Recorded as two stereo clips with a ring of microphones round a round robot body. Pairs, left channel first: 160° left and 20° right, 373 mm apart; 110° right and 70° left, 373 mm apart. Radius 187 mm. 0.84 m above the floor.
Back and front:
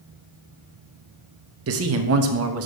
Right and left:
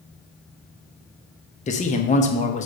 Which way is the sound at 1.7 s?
50° right.